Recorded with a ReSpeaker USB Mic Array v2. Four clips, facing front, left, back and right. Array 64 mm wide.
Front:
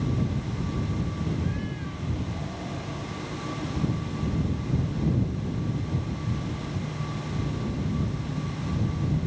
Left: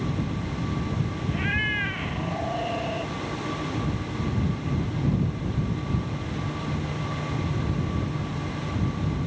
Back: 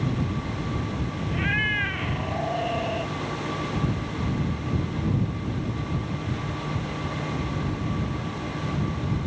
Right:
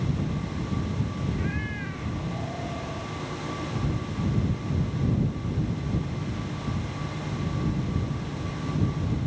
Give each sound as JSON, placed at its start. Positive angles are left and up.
{"t": 1.3, "sound": "a cat meowing", "azimuth_deg": 150}